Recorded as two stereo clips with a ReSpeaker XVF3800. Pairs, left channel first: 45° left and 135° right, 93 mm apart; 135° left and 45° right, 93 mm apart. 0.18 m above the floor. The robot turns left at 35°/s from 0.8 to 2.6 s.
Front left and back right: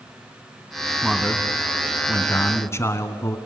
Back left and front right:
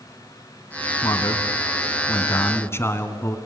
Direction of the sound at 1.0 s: 145° left.